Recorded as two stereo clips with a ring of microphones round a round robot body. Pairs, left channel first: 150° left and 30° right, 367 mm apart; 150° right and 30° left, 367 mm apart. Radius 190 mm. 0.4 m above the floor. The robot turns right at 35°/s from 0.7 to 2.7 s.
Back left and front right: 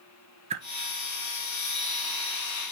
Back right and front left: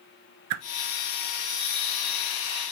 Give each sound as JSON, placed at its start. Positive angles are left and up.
{"t": 0.5, "sound": "a whoosh", "azimuth_deg": 45, "distance_m": 1.2}